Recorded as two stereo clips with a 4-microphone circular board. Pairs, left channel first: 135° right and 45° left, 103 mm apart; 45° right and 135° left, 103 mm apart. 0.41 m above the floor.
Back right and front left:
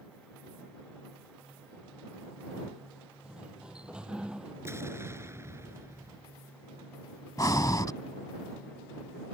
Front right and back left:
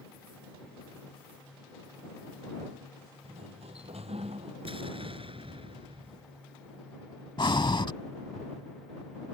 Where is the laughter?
I don't hear laughter.